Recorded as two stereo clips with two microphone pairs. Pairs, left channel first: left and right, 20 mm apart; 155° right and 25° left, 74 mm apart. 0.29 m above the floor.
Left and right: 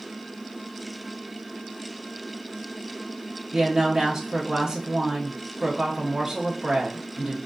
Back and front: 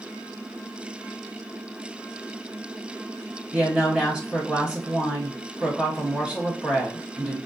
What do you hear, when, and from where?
3.5 s a woman speaking: 50° right, 1.4 m